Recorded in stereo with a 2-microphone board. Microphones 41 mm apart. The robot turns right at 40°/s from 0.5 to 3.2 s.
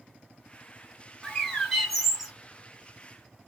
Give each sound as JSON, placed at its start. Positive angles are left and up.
{"t": 1.2, "sound": "a bird", "azimuth_deg": 155, "distance_m": 1.5}